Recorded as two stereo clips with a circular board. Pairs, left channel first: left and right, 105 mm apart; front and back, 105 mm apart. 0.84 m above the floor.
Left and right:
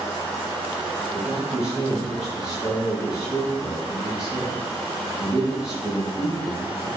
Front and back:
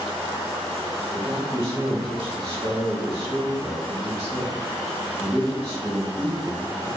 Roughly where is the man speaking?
Behind left.